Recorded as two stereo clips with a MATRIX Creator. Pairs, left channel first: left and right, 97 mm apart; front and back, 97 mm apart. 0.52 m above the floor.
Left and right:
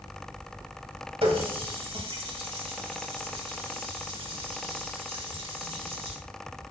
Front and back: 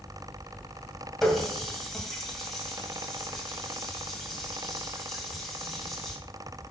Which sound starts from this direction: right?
A running tap, at 1.2 s.